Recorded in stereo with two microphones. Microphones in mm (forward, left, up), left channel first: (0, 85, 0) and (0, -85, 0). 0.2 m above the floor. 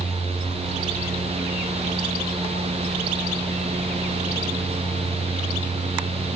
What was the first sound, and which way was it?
Only background noise.